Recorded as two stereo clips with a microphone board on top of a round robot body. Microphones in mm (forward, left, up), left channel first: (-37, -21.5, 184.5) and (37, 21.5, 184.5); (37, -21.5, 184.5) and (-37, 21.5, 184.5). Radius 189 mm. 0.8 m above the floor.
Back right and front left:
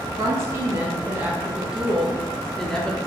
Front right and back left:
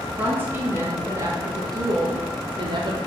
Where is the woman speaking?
80° left, 2.0 m; by 3.0 s 130° left, 2 m.